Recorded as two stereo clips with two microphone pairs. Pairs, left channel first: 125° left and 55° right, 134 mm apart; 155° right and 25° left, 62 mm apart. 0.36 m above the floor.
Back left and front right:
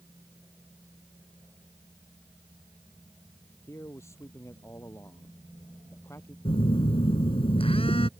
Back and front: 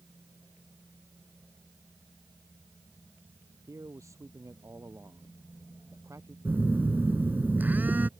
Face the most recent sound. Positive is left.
turn(degrees=85)